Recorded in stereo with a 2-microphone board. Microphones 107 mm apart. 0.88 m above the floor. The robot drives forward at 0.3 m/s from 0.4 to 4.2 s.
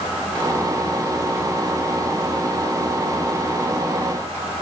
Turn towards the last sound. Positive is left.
No sound to turn to.